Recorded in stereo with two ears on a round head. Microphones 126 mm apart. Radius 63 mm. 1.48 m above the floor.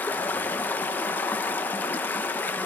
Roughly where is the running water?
Centre.